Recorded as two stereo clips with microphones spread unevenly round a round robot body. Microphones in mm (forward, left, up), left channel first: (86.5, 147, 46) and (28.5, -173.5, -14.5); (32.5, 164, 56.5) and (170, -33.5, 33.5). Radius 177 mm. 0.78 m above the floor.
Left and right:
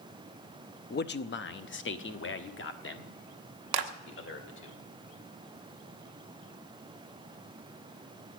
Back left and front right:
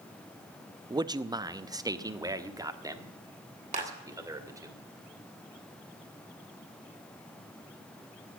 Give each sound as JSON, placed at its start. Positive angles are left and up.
{"t": 0.9, "sound": "a man speaking", "azimuth_deg": 15, "distance_m": 0.7}
{"t": 3.7, "sound": "a clap", "azimuth_deg": -120, "distance_m": 1.3}